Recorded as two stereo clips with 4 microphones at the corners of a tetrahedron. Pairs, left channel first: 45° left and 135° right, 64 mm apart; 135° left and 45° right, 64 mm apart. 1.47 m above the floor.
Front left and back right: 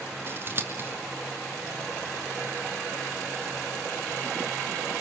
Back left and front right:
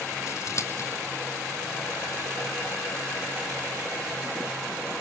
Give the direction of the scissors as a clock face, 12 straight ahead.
6 o'clock.